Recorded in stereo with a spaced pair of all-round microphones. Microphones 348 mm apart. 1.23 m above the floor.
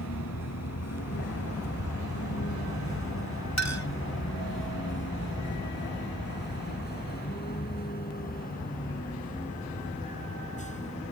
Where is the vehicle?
50° left (ahead or behind); by 11.1 s 20° left (ahead or behind).